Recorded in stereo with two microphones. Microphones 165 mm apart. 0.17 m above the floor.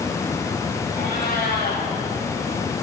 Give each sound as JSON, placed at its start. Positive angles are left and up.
{"t": 0.9, "sound": "a cat meowing", "side_deg": 65, "distance_m": 5.5}